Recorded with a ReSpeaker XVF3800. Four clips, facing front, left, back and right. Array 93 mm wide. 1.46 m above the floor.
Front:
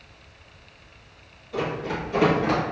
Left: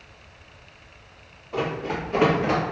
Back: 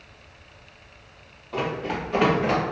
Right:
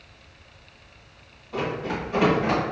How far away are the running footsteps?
About 1.8 m.